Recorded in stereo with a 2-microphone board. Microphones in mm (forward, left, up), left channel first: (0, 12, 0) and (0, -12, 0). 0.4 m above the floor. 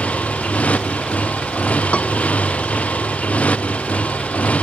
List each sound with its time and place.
0.0 s a motorcycle: 90° left; by 4.6 s 85° left
1.9 s a piano: 65° left (ahead or behind)